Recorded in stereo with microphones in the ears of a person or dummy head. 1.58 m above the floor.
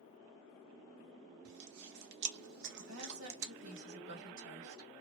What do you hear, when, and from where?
1.4 s chewing: 65° right (ahead or behind), 1.1 m
2.8 s a woman speaking: 70° right (ahead or behind), 1.4 m